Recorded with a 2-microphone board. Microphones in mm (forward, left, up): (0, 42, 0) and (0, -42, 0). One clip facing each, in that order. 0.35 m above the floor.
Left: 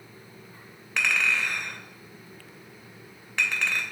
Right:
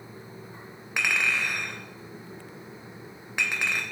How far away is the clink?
About 0.5 m.